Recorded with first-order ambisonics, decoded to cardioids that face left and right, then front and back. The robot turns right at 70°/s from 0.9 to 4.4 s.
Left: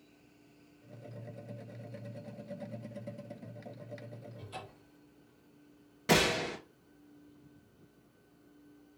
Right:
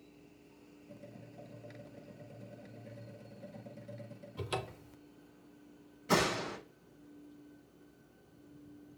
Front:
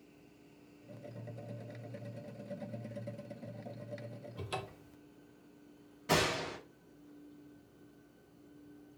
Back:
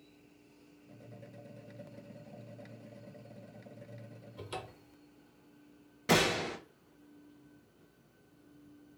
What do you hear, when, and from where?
4.4 s a cupboard door: 75° right, 0.9 m
6.1 s a gunshot: 120° left, 2.5 m